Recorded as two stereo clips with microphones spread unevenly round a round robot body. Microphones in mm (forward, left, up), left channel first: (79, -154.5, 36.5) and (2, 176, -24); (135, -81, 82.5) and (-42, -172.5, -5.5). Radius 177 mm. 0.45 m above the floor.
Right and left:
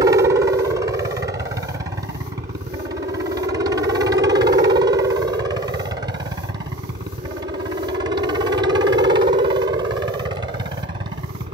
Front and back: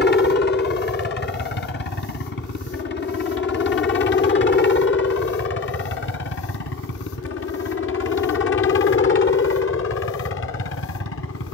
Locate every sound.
0.0 s a helicopter: 55° left; by 11.6 s 45° left